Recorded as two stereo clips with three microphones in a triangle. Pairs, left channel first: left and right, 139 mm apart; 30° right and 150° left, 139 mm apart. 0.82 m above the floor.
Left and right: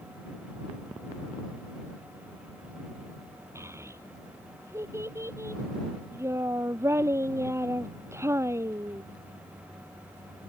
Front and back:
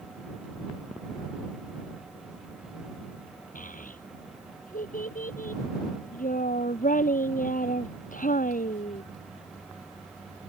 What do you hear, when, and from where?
3.5 s a child speaking: 20° right